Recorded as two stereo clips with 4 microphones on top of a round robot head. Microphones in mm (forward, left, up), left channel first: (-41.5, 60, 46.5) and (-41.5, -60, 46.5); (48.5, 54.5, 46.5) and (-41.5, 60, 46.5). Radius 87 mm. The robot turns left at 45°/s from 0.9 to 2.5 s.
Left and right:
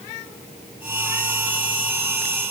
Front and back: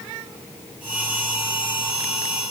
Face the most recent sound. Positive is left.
No sound to turn to.